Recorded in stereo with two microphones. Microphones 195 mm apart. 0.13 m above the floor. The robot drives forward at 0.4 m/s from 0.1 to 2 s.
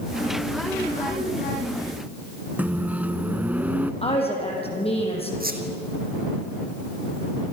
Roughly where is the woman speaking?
Left.